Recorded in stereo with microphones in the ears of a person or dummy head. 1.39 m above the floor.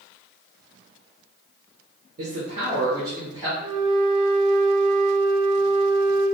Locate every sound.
2.2 s a man speaking: 50° right (ahead or behind), 0.9 m; by 3.5 s 20° right (ahead or behind), 1.8 m
3.6 s a flute: 40° right (ahead or behind), 1.6 m